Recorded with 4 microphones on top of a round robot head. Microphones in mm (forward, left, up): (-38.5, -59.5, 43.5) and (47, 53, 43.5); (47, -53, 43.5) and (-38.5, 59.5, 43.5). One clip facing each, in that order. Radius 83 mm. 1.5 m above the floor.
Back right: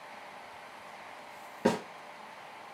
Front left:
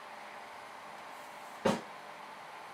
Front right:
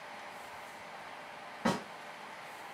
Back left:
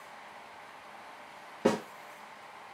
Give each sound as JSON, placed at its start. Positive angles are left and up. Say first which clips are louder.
{"t": 1.6, "sound": "a snare drum", "louder": "back right 3 dB, back left 6 dB", "azimuth_deg": -175, "distance_m": 2.0}